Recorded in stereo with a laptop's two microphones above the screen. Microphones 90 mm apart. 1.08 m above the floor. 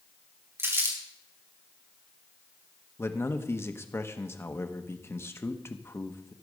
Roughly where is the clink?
I don't hear a clink.